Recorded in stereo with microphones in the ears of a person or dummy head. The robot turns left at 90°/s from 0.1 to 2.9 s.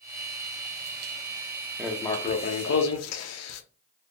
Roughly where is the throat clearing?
No throat clearing in this recording.